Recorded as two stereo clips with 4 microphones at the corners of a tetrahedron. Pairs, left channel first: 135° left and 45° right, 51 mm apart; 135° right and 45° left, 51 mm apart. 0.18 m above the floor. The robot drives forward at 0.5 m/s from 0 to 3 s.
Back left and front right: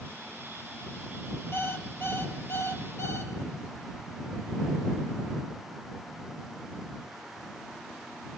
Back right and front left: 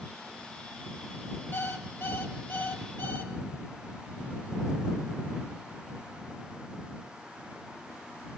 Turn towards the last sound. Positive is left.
turn(degrees=180)